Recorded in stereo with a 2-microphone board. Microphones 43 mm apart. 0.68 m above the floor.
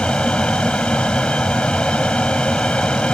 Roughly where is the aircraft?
Left.